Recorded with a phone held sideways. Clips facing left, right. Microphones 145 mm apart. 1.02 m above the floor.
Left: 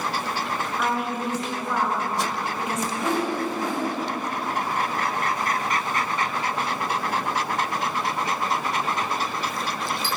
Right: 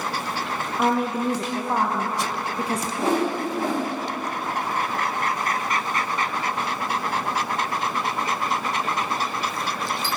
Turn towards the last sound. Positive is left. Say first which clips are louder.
# right 3 dB
turn(degrees=-30)  # may be behind; listen again after turning